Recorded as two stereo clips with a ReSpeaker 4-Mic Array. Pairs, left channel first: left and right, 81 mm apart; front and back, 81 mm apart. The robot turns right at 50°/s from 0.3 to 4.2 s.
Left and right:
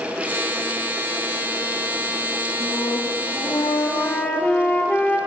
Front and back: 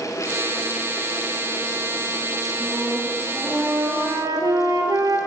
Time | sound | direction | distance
2.6 | a flute | 80° left | 4.5 m